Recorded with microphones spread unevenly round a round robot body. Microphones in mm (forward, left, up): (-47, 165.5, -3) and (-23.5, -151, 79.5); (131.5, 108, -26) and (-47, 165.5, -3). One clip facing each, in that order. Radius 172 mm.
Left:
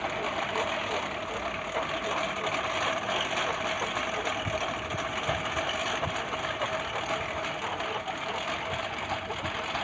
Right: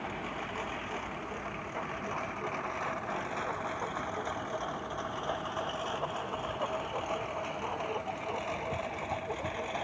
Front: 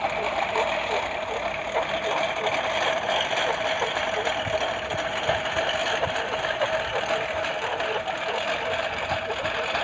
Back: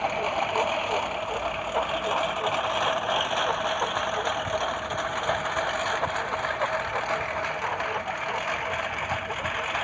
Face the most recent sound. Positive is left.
turn(degrees=30)